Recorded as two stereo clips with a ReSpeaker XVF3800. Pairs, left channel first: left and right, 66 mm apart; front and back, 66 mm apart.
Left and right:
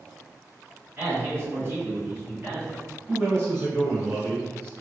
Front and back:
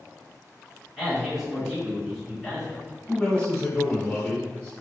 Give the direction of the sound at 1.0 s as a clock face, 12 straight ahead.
3 o'clock.